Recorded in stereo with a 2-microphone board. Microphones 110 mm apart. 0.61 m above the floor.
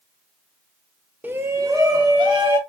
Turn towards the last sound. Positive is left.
turn(degrees=-45)  # may be behind; listen again after turning